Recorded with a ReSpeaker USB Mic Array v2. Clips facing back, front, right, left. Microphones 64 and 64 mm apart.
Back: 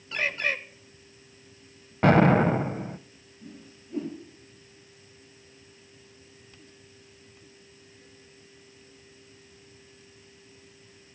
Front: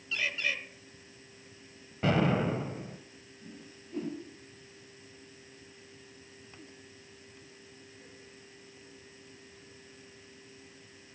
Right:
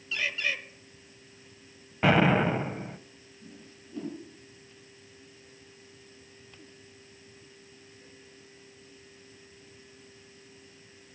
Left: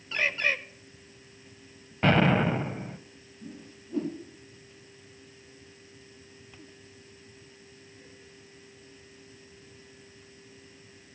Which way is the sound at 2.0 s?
175° right.